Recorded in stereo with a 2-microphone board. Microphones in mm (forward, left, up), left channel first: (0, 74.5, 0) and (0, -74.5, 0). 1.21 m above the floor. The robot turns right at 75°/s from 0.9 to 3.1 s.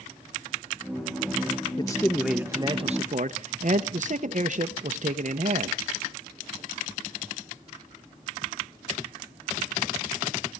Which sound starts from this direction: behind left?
A man speaking, at 1.8 s.